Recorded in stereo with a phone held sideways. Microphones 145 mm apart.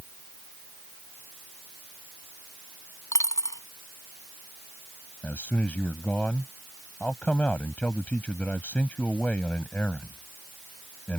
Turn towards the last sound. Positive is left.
turn(degrees=10)  # may be behind; listen again after turning